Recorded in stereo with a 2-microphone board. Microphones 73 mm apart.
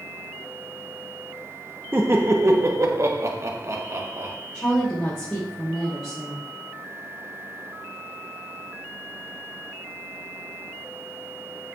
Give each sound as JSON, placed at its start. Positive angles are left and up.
{"t": 1.9, "sound": "laughter", "side_deg": -30, "distance_m": 0.9}
{"t": 4.5, "sound": "a woman speaking", "side_deg": 10, "distance_m": 4.5}